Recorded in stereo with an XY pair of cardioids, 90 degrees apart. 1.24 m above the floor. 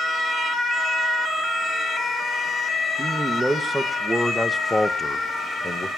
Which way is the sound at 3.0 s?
10° right.